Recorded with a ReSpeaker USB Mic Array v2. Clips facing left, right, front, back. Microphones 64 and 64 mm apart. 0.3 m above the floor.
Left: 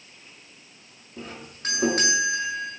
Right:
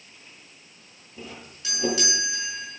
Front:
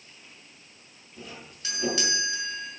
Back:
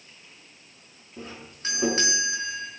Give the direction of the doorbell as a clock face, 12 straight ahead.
8 o'clock.